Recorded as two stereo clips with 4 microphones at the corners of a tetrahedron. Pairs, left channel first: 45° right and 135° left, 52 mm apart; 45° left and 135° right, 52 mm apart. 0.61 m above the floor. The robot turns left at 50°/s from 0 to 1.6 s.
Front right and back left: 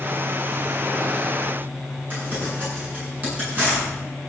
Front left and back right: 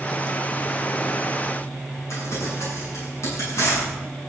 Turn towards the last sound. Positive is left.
turn(degrees=80)